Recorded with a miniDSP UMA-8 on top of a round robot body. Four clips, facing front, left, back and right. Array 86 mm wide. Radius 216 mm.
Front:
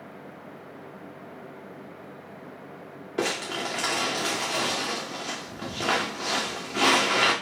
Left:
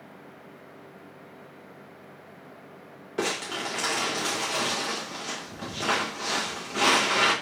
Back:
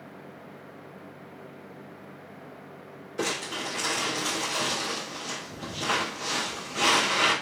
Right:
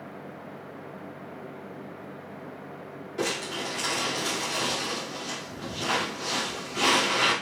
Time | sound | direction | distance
3.2 | crumpling | 35° left | 0.8 m